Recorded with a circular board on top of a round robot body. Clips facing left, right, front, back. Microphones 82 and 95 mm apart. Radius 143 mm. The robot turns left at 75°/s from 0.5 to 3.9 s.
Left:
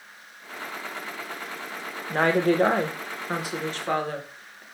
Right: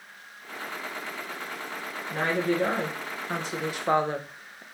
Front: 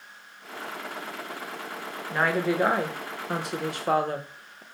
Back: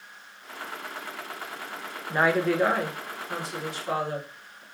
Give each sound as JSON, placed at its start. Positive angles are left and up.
{"t": 2.1, "sound": "a woman speaking", "azimuth_deg": 110, "distance_m": 0.6}